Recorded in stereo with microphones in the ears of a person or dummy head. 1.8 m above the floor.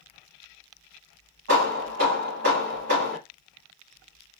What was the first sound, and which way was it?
Hammering, 55° right (ahead or behind).